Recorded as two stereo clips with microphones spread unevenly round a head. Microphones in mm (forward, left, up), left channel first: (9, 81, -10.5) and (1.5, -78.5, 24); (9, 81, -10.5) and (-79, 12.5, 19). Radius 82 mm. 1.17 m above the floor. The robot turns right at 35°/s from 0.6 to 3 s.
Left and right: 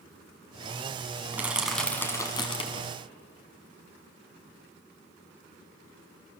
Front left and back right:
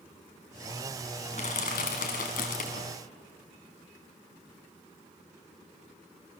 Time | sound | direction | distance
1.3 | crushing | 20° right | 3 m